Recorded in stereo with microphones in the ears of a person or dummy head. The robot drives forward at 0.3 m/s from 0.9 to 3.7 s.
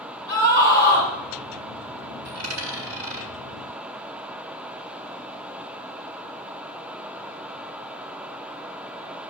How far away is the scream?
About 6.5 m.